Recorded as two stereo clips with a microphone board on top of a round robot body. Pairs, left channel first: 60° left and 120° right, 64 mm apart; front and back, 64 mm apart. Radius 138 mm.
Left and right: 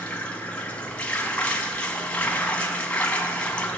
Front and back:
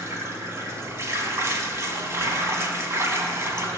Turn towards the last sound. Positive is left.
turn(degrees=130)